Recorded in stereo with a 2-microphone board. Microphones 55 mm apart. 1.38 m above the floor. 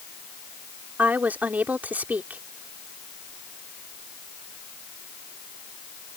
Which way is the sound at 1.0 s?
30° right (ahead or behind).